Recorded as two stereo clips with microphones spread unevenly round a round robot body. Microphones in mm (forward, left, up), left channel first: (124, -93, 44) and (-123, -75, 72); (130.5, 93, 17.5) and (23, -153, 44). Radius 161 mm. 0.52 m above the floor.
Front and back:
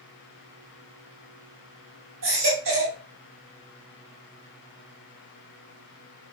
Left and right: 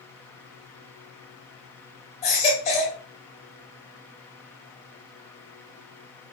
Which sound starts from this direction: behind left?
A baby crying, at 2.2 s.